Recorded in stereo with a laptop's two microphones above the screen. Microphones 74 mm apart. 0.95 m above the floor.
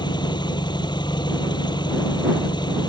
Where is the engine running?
85° left.